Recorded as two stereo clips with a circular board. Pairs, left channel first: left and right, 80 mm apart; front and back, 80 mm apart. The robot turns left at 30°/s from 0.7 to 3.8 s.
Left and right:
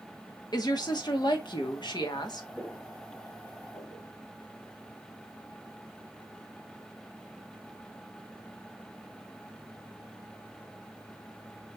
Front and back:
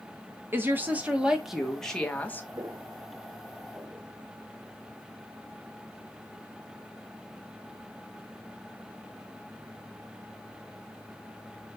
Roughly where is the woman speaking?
Behind left.